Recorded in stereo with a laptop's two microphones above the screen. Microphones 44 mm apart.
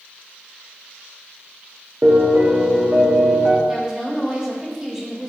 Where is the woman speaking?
15° right (ahead or behind), 0.7 m.